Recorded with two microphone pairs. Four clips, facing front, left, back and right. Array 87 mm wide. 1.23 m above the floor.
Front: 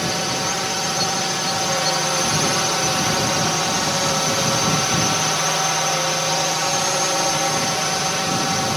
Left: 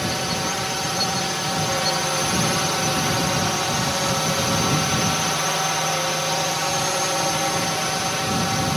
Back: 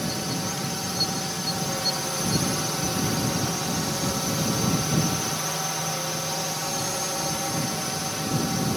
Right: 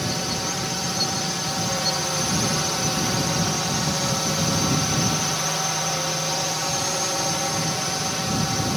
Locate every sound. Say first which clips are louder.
0.0 s a drone: left 3 dB, front 6 dB; 20° left